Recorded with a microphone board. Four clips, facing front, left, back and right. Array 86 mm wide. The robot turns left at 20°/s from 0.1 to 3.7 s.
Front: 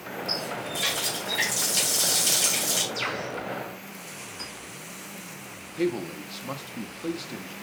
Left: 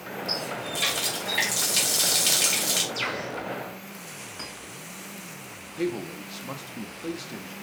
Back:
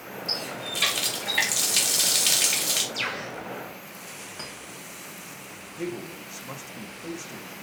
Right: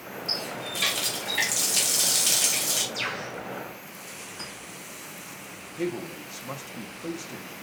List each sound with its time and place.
0.3 s a running tap: 165° right, 1.3 m; by 2.8 s 145° left, 1.3 m
2.9 s a bird: 165° left, 3 m; by 3.3 s 160° left, 3 m
4.4 s a clink: 145° left, 3 m
5.8 s a man speaking: 25° left, 0.7 m